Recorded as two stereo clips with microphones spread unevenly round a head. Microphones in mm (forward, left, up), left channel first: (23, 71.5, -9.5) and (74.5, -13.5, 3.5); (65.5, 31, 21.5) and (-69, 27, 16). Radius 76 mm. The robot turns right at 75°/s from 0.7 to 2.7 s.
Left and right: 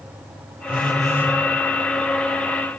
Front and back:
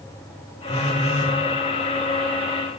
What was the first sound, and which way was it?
A phone buzzing, 30° right.